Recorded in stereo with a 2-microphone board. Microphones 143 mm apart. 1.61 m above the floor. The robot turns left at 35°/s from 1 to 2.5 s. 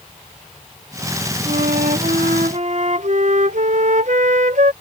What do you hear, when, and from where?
1.4 s a flute: 75° right; by 4.7 s 110° right